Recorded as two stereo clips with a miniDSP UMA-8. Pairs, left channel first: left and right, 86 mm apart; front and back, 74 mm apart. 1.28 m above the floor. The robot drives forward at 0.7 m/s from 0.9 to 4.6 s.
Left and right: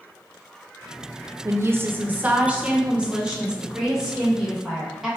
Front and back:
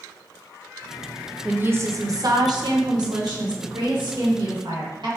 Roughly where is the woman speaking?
Behind right.